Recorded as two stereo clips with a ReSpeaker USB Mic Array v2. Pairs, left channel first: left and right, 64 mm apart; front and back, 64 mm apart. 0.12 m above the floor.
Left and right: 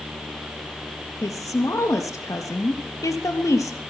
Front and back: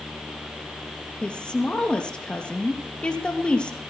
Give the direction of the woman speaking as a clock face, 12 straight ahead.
10 o'clock.